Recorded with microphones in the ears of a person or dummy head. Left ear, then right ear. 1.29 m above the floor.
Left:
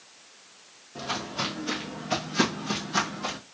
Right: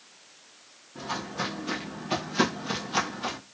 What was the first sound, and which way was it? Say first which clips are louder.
Footsteps: left 2 dB; 25° left (ahead or behind).